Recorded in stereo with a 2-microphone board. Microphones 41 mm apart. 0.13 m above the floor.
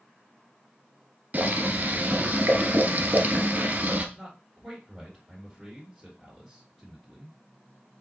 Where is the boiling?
45° right (ahead or behind), 0.8 m.